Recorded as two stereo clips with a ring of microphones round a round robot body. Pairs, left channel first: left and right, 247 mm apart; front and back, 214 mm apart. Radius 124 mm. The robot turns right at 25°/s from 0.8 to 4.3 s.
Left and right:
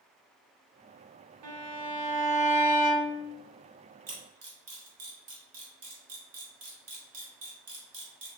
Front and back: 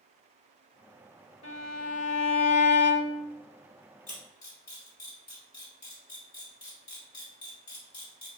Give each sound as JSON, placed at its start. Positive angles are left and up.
{"t": 1.4, "sound": "a violin", "azimuth_deg": -65, "distance_m": 0.7}
{"t": 4.1, "sound": "a camera shutter", "azimuth_deg": -65, "distance_m": 1.8}